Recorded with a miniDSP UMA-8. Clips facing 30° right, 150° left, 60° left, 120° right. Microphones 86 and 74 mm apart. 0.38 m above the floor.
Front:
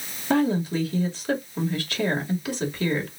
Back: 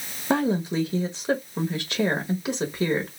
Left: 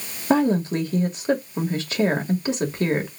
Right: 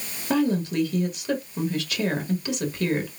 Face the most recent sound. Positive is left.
turn(degrees=95)